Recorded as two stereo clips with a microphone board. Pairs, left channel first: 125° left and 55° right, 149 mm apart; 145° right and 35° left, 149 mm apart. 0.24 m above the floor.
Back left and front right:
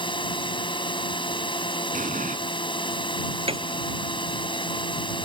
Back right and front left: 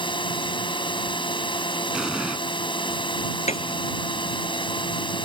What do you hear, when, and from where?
0.0 s a drone: 170° left
1.9 s an explosion: 50° right
3.5 s a piano: 105° right